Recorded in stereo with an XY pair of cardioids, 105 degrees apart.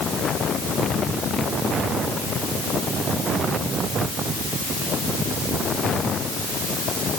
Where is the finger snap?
No finger snap in this recording.